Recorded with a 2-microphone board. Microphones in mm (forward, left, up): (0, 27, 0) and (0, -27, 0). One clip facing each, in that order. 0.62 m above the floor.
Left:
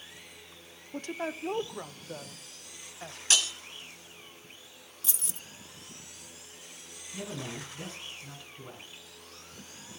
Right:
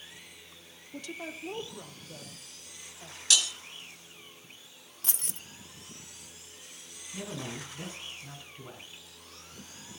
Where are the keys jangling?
50° right (ahead or behind), 0.8 m.